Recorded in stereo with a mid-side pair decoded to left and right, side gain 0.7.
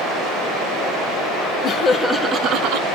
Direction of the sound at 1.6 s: 35° left.